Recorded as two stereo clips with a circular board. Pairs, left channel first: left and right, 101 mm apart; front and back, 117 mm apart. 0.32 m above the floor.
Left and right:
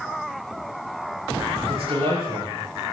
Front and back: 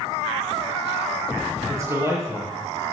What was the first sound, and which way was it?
A man speaking, 115° right.